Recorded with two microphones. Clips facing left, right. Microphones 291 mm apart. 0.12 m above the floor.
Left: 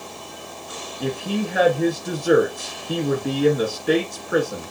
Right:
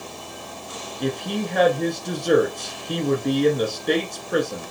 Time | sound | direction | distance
1.0 | a woman speaking | 5° left (ahead or behind) | 1.1 m